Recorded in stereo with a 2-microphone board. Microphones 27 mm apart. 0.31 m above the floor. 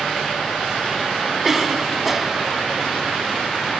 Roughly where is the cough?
Centre.